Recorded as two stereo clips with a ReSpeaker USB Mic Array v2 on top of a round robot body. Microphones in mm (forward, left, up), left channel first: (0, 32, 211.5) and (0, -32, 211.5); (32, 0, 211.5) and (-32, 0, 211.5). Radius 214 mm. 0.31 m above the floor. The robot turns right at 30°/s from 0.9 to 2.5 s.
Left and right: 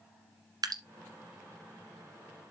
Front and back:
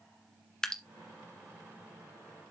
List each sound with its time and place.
0.6 s dripping: 80° right, 1.5 m